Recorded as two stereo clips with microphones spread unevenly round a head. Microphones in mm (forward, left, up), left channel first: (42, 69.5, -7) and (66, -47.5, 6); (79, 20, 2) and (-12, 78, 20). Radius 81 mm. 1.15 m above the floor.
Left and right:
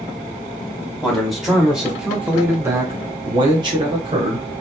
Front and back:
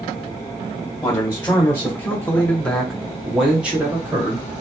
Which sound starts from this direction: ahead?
A man speaking, at 1.0 s.